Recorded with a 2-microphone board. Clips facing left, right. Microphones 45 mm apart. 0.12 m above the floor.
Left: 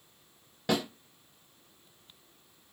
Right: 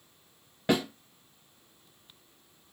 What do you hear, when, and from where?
0.7 s a snare drum: 20° right (ahead or behind), 1.4 m